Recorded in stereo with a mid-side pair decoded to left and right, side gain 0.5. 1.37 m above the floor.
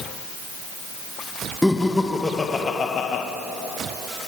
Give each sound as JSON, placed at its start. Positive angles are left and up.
{"t": 1.6, "sound": "laughter", "azimuth_deg": 5, "distance_m": 1.8}